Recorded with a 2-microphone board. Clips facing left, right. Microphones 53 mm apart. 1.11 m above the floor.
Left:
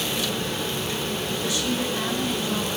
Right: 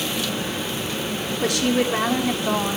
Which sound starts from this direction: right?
A woman speaking, at 1.4 s.